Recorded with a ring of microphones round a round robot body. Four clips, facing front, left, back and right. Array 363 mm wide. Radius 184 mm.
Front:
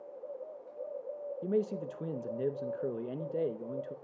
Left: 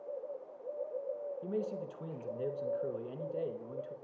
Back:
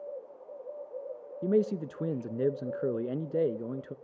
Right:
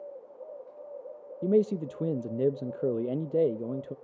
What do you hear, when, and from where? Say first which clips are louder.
1.4 s a man speaking: right 15 dB, back 5 dB; 115° right, 0.5 m